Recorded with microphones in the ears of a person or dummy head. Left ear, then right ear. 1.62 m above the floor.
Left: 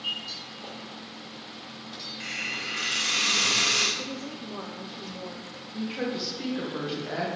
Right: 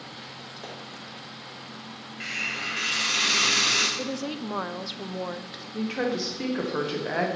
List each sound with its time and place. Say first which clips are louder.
0.6 s a pop: right 1 dB; 65° right (ahead or behind), 3.5 m
2.2 s a hiss: right 3 dB; 15° right (ahead or behind), 1.0 m
4.0 s a woman speaking: right 4 dB; 65° right (ahead or behind), 0.5 m
5.7 s a woman speaking: right 4 dB; 35° right (ahead or behind), 1.3 m